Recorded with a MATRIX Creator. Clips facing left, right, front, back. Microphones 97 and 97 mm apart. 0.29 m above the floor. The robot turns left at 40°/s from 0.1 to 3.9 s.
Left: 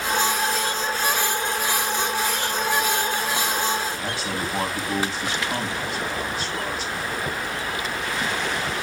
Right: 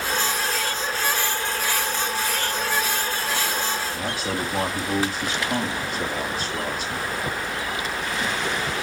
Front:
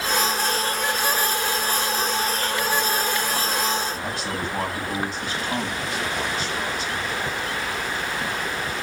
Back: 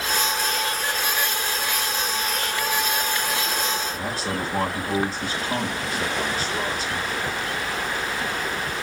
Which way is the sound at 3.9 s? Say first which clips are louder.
Right 1 dB, back 1 dB; 130° right.